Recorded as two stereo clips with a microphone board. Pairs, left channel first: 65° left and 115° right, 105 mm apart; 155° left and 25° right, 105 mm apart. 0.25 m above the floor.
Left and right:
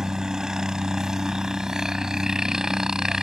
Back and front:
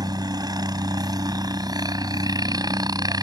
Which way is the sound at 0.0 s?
30° right.